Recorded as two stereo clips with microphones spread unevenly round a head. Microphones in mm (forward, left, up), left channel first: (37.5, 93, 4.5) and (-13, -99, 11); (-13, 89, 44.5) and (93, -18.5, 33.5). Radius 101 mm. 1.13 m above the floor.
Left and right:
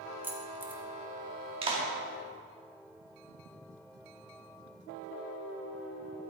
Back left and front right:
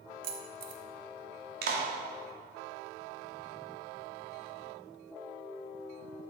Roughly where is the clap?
Ahead right.